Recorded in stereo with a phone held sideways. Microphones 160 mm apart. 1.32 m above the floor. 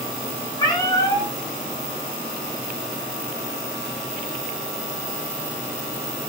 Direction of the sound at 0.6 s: 25° left (ahead or behind).